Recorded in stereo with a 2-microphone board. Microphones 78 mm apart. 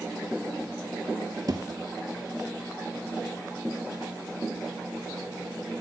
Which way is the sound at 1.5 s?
55° right (ahead or behind).